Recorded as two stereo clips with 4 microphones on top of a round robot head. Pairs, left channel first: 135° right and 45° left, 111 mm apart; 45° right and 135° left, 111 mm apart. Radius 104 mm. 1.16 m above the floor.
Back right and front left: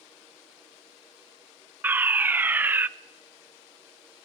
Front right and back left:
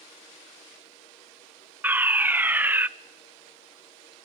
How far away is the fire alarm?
About 0.9 m.